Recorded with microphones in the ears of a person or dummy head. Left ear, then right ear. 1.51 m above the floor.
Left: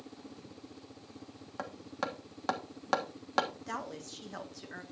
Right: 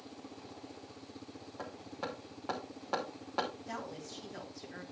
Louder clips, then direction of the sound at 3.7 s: Left 3 dB; 50° left (ahead or behind).